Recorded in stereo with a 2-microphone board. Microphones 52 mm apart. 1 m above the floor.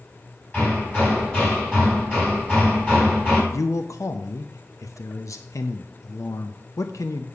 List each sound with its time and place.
0.5 s hammering: 35° left (ahead or behind), 5.5 m
3.5 s a man speaking: 70° left (ahead or behind), 0.6 m